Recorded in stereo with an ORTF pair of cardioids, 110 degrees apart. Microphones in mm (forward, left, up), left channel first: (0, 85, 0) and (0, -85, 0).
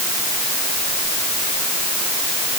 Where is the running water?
No running water in this recording.